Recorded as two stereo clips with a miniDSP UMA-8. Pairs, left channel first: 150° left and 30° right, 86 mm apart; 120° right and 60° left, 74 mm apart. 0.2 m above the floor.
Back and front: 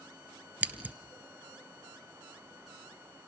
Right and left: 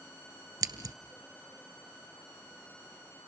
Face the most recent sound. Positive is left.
turn(degrees=40)